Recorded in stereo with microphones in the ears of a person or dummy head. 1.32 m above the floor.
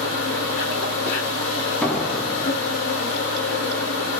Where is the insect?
70° left (ahead or behind), 2.0 m.